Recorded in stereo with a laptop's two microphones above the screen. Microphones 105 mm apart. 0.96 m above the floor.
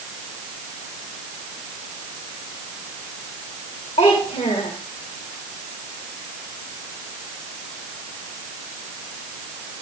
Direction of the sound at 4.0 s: 85° left.